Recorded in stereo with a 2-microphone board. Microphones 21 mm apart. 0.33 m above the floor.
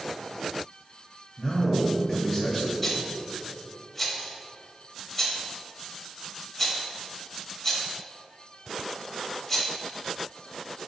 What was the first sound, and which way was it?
A man speaking, 5° right (ahead or behind).